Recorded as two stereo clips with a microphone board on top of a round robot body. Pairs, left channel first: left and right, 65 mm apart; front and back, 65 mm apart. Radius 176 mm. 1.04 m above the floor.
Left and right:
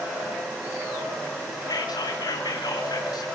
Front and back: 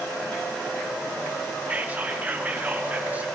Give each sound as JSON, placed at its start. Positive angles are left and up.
{"t": 1.7, "sound": "whispering", "azimuth_deg": 110, "distance_m": 2.5}